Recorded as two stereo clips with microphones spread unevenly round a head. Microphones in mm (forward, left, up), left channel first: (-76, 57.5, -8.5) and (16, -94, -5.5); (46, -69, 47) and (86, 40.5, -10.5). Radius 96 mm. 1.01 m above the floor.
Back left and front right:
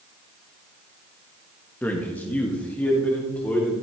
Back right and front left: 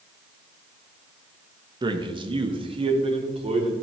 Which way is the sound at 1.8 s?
40° left.